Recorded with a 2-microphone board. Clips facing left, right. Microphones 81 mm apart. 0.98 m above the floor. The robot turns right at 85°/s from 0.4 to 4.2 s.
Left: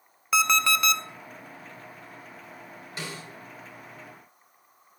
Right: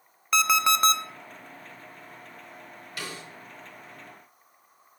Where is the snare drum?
25° left (ahead or behind), 4 m; by 3.2 s 45° left (ahead or behind), 4 m.